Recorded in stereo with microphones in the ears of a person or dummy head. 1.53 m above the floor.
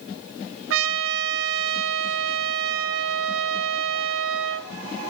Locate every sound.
0.7 s a trumpet: 70° right (ahead or behind), 0.8 m